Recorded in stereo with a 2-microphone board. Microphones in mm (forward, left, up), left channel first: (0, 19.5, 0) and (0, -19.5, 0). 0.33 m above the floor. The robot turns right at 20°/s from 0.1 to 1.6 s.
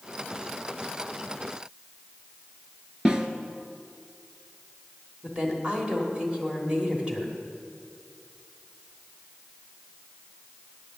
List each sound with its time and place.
3.0 s a snare drum: 25° right (ahead or behind), 0.8 m
5.2 s a woman speaking: 25° right (ahead or behind), 1.5 m